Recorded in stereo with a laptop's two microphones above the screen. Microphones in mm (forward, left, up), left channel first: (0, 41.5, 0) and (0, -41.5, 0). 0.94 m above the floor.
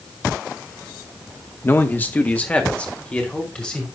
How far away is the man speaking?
About 1.0 m.